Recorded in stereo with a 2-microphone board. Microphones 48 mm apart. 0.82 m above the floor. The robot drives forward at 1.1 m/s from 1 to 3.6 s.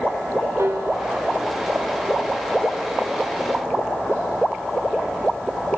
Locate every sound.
0.6 s a piano: 70° right (ahead or behind), 1.9 m; by 1.2 s 75° right (ahead or behind), 1.9 m